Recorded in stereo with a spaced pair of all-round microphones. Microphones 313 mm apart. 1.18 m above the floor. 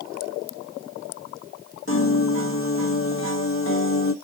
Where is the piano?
40° left (ahead or behind), 0.7 m.